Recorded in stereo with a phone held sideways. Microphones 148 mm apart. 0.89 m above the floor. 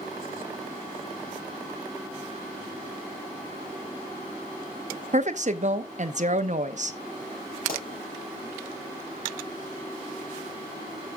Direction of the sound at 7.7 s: 75° left (ahead or behind).